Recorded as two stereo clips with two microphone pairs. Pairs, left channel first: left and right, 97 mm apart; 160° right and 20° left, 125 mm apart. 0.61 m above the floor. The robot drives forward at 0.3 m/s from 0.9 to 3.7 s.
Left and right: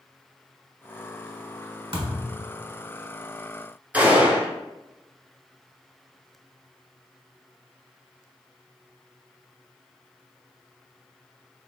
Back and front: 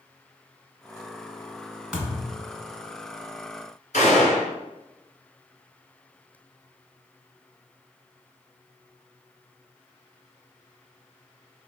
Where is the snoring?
I don't hear snoring.